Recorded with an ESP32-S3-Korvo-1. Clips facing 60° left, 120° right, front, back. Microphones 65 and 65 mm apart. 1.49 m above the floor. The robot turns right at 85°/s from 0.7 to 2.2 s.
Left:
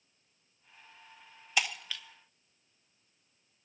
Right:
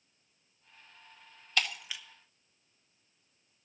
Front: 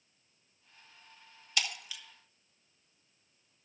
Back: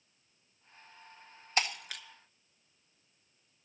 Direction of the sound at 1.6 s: 135° left.